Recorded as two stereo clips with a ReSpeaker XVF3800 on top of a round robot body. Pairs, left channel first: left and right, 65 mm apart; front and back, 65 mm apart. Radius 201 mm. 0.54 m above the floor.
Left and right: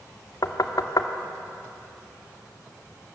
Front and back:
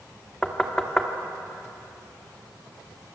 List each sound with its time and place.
0.4 s knocking: 80° left, 1.9 m